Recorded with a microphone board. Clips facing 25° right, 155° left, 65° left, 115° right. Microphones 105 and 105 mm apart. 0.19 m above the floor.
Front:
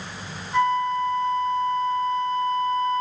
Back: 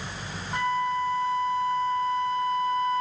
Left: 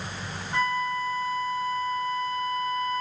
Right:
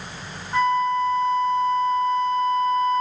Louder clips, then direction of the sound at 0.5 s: Front 5 dB, right 7 dB; straight behind.